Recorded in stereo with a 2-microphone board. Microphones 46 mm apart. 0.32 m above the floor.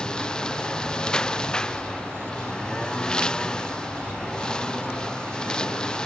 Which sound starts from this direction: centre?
A lawn mower, at 0.0 s.